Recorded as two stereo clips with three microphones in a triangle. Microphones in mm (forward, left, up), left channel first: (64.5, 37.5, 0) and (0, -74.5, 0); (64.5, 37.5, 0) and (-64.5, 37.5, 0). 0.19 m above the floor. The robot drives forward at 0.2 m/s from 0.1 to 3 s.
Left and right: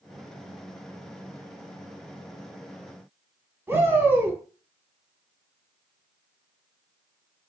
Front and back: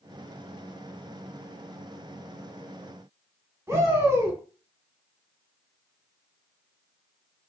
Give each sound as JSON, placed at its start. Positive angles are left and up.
{"t": 3.7, "sound": "a shout", "azimuth_deg": -160, "distance_m": 1.1}